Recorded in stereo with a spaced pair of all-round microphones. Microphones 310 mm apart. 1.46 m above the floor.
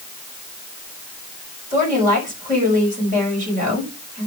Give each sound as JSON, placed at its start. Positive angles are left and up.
{"t": 1.7, "sound": "a woman speaking", "side_deg": -25, "distance_m": 6.0}